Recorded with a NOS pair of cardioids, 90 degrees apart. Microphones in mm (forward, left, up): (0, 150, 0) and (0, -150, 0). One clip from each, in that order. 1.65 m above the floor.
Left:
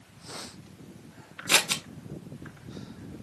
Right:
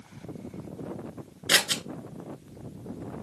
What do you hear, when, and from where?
1.5 s scissors: 5° right, 1.3 m